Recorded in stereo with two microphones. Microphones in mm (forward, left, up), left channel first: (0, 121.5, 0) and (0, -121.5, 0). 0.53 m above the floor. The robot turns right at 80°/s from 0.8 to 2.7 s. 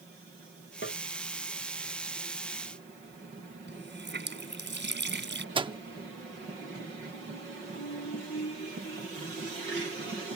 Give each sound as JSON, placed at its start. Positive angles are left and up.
{"t": 0.8, "sound": "tapping", "side_deg": 50}
{"t": 3.7, "sound": "a running tap", "side_deg": -45}
{"t": 5.5, "sound": "a microwave", "side_deg": -20}